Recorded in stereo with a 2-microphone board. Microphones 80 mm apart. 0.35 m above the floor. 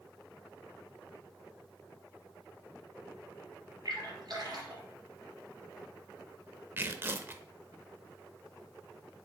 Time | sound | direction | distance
3.9 | a splash | 55° right (ahead or behind) | 3 m
6.8 | tearing paper | 30° right (ahead or behind) | 0.6 m